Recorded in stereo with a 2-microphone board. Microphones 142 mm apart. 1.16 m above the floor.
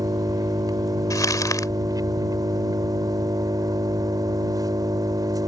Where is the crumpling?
25° left (ahead or behind).